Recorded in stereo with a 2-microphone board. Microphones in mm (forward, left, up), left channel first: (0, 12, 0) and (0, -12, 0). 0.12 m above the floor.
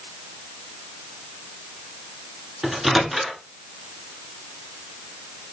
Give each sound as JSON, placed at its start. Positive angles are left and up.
{"t": 2.6, "sound": "a microwave", "side_deg": -10, "distance_m": 1.2}